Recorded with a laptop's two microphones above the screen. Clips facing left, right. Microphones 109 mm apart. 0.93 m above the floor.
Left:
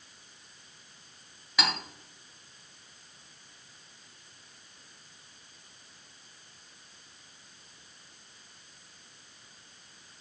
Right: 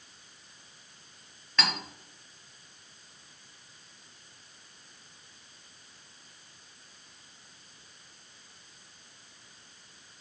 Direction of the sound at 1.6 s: 10° left (ahead or behind).